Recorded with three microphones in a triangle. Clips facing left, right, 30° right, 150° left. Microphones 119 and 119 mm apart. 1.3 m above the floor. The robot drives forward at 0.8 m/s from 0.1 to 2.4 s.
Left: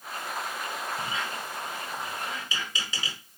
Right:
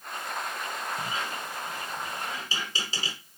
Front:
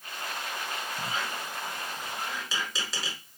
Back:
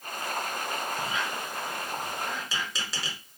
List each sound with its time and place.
1.0 s a squeak: 55° right, 1.6 m; by 3.2 s 120° right, 1.5 m